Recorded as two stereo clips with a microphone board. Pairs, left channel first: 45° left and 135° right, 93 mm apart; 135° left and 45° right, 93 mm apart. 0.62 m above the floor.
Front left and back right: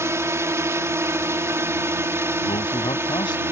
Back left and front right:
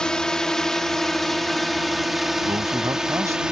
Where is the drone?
150° right; by 3.5 s 120° right.